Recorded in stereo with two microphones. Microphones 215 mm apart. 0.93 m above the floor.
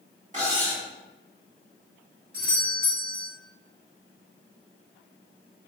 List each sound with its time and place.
0.3 s cutlery clinking: 35° right (ahead or behind), 1.2 m
2.3 s a doorbell: 5° right (ahead or behind), 1.9 m